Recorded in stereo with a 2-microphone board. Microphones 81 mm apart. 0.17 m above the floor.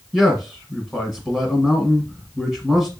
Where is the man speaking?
5° left (ahead or behind), 1.0 m.